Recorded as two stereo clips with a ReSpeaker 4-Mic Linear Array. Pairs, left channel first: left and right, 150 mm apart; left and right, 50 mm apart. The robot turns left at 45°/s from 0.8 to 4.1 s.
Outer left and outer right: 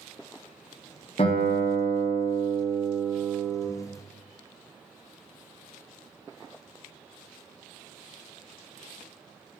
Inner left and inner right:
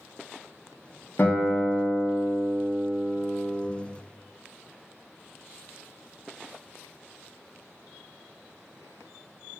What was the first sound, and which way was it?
A guitar, 95° left.